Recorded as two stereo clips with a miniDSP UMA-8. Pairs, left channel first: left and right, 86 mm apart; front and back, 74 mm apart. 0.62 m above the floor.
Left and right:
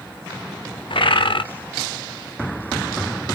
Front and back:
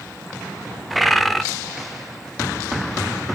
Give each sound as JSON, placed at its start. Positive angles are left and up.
{"t": 0.9, "sound": "a bird", "azimuth_deg": 90, "distance_m": 0.8}